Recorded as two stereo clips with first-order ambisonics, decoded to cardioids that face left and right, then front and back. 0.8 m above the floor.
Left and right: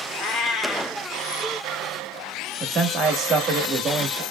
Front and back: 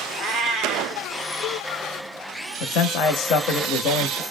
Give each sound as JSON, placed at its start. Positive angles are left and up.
{"t": 0.2, "sound": "a cat meowing", "azimuth_deg": 125, "distance_m": 1.2}
{"t": 2.6, "sound": "a man speaking", "azimuth_deg": -30, "distance_m": 0.8}